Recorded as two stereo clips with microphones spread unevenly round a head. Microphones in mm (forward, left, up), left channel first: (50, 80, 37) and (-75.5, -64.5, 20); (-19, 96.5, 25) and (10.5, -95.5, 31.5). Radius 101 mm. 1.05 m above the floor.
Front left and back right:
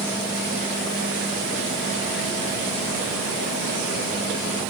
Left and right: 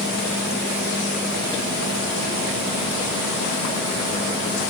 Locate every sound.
Only background noise.